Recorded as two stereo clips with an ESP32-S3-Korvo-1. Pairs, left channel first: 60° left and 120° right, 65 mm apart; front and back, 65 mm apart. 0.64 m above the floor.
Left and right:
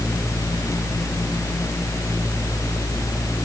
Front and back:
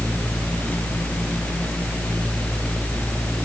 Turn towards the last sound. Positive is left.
No sound to turn to.